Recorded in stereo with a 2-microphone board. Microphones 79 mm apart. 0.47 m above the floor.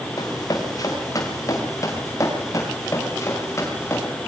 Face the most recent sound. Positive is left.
turn(degrees=35)  # may be behind; listen again after turning